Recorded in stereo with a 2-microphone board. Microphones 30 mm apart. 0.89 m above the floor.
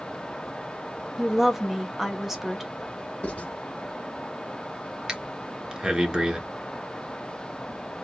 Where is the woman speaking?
10° right (ahead or behind), 1.4 m.